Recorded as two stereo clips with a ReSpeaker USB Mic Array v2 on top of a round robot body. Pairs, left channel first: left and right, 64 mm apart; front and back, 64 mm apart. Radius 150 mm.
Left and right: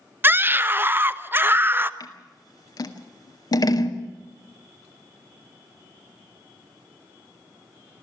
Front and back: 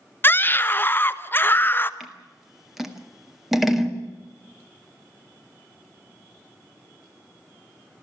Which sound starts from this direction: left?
Scissors, at 2.0 s.